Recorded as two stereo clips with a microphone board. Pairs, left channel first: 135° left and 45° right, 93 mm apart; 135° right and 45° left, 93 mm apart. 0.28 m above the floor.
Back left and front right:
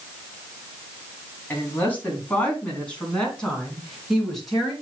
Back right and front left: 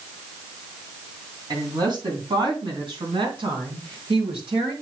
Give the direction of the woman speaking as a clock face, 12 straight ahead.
10 o'clock.